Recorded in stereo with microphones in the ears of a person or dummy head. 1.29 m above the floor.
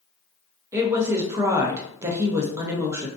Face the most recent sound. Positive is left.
turn(degrees=-15)  # may be behind; listen again after turning